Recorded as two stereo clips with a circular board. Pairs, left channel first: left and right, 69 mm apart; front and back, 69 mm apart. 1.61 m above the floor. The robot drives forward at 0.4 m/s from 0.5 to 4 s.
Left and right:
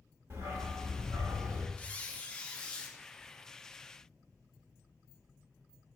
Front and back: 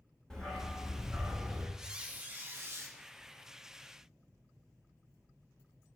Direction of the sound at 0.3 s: 80° right.